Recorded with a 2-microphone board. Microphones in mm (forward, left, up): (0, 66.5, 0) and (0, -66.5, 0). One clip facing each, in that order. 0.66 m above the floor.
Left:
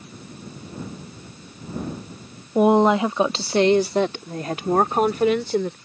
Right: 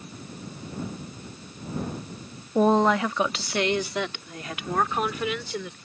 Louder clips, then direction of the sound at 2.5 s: Left 4 dB; 10° left (ahead or behind).